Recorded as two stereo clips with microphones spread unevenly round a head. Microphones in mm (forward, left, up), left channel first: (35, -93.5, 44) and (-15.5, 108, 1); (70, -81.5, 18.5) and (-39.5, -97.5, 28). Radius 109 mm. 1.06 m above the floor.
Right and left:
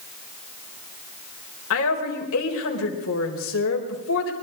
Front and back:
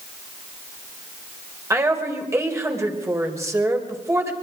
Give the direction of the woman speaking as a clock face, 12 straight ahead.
4 o'clock.